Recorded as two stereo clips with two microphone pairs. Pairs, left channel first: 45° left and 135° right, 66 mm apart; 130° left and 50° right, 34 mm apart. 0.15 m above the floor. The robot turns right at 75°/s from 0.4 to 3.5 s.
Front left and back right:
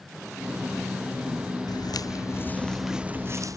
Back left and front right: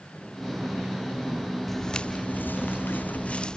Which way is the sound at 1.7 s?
40° left.